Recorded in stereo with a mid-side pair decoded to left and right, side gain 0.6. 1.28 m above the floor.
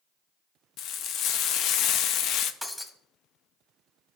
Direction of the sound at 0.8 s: 60° left.